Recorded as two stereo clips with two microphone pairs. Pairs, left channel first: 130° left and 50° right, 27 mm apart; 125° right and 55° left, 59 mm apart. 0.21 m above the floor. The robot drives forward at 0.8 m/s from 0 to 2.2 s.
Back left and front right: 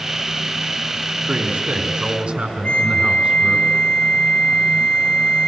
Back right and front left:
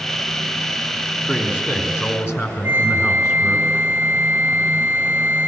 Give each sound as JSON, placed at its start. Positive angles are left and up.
{"t": 1.3, "sound": "a man speaking", "azimuth_deg": -70, "distance_m": 2.5}
{"t": 2.6, "sound": "a flute", "azimuth_deg": 130, "distance_m": 6.0}